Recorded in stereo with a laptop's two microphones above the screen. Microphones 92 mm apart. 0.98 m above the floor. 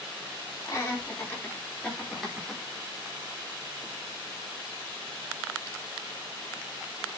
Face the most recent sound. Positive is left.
turn(degrees=-5)  # may be behind; listen again after turning